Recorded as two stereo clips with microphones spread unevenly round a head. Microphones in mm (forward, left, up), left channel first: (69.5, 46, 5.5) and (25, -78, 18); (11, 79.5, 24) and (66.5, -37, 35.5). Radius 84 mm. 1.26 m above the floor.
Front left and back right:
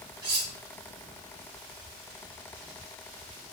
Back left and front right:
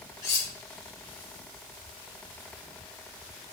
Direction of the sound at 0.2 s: 175° right.